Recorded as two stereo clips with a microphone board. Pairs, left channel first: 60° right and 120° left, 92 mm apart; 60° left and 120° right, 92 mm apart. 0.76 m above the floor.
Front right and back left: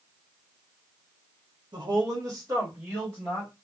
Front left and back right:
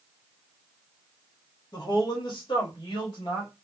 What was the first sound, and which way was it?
A woman speaking, 95° left.